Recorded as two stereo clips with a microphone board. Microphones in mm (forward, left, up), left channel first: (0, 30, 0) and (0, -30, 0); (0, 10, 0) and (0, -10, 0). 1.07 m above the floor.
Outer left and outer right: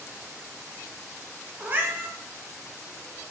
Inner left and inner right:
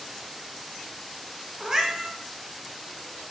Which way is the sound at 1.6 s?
35° right (ahead or behind).